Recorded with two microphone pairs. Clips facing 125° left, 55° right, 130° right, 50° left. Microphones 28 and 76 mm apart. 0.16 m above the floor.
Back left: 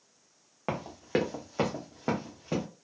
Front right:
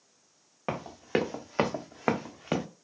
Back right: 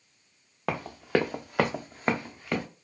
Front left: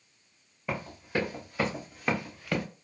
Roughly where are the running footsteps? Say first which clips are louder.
Front right 1 dB, back right 6 dB; behind right.